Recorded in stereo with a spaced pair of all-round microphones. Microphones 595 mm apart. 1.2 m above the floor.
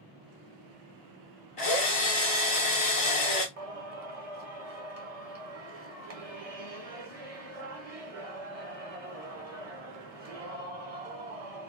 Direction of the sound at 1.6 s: 60° left (ahead or behind).